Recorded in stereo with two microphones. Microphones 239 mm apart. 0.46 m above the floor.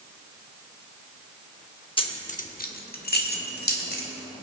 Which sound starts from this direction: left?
Keys jangling, at 2.0 s.